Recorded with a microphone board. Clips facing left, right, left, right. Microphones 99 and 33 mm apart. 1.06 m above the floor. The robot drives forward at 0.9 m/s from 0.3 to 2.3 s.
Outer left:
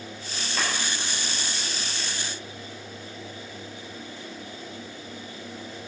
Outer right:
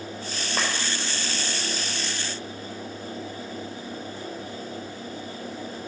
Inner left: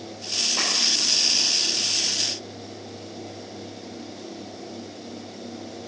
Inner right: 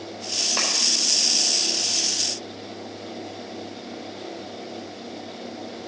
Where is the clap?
40° right (ahead or behind), 4.5 m.